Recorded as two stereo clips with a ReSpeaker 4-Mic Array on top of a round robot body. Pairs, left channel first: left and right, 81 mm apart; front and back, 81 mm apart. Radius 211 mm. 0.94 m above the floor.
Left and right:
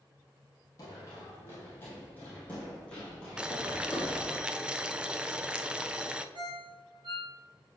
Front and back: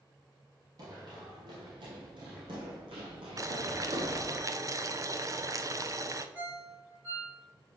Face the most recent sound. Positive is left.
turn(degrees=-115)